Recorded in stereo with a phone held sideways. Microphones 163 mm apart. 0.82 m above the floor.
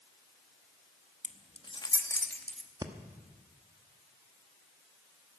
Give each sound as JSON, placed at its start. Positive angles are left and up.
{"t": 1.2, "sound": "keys jangling", "side_deg": 50, "distance_m": 0.7}
{"t": 2.8, "sound": "breathing", "side_deg": -25, "distance_m": 0.9}